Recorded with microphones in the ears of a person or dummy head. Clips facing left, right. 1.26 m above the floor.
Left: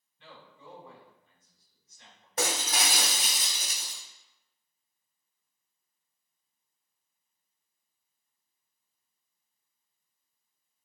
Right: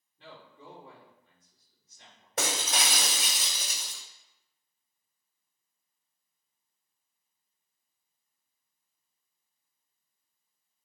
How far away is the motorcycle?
No motorcycle in this recording.